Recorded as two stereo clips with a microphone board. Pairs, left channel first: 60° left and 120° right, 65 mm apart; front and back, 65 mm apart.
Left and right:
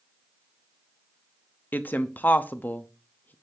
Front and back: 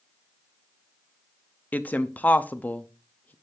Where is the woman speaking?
35° left, 0.6 m.